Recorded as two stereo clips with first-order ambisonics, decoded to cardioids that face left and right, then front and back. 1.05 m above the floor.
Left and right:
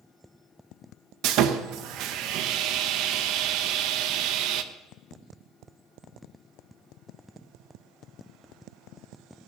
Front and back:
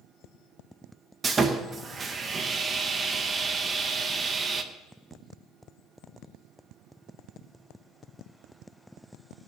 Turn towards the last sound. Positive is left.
turn(degrees=-115)